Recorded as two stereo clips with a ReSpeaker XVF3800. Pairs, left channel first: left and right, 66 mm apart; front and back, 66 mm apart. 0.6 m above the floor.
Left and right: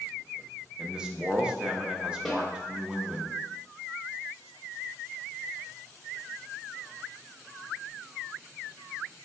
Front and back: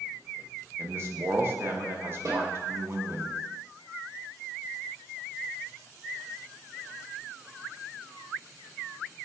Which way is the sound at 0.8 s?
155° right.